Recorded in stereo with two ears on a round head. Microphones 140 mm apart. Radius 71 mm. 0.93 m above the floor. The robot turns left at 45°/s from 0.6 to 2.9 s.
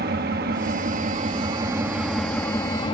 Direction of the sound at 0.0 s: 110° right.